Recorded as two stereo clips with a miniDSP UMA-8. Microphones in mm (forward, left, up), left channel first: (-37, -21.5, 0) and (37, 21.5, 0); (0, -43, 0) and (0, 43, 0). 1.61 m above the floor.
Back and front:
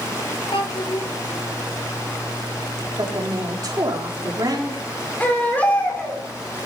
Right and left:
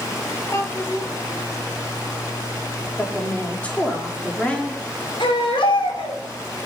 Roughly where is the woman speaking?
Ahead.